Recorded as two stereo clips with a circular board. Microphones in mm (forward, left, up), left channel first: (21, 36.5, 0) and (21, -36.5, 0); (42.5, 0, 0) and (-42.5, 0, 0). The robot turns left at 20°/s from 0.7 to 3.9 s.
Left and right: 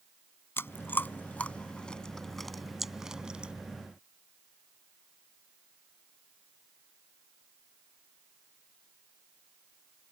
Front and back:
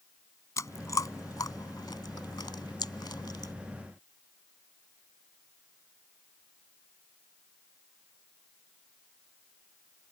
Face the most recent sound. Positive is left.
turn(degrees=-25)